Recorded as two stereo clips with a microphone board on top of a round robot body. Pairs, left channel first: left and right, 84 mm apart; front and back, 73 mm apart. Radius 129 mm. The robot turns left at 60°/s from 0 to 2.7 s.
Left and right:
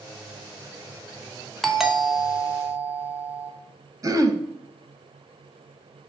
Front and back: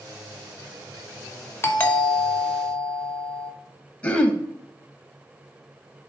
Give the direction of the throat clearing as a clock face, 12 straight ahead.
2 o'clock.